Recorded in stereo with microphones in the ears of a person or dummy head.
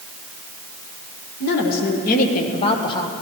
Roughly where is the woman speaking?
Left.